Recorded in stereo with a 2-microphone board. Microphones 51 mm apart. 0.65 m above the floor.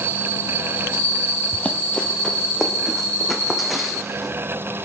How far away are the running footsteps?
About 1.3 m.